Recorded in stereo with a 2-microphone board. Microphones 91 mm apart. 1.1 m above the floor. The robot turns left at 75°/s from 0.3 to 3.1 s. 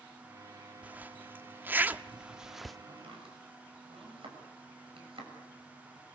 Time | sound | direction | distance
0.8 | a zipper | 15° right (ahead or behind) | 0.6 m
2.9 | chopping | 80° right | 7 m